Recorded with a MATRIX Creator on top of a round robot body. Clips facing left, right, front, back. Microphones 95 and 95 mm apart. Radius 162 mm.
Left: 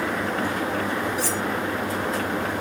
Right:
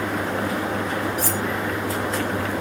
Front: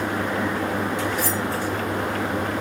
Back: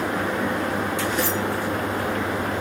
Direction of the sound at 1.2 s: 50° right.